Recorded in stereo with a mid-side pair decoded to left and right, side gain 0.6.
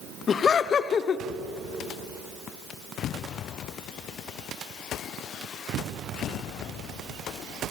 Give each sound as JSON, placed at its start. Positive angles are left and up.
{"t": 0.3, "sound": "laughter", "azimuth_deg": 40, "distance_m": 1.1}